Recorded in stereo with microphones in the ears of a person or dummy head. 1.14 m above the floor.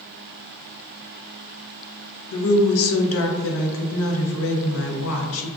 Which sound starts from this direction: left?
A woman speaking, at 2.3 s.